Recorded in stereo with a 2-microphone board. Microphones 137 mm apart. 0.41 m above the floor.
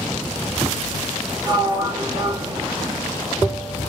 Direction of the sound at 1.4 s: 30° right (ahead or behind).